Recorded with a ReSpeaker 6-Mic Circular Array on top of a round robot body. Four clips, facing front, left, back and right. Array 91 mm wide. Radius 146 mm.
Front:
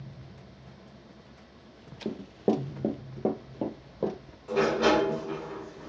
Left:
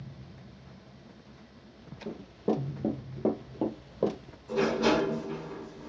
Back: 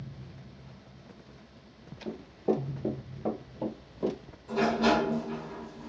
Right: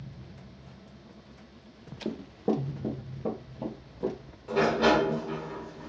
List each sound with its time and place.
2.0 s running footsteps: 40° right, 0.6 m; by 4.2 s 65° left, 1.3 m
4.5 s a sliding door: 50° right, 1.4 m